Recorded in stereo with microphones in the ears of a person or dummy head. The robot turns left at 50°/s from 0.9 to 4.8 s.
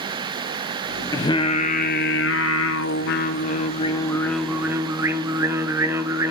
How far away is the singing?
About 1.1 m.